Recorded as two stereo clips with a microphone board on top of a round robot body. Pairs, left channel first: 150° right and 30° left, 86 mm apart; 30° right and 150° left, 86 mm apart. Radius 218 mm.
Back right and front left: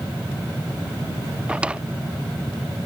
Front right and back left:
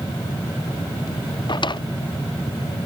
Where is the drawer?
45° right.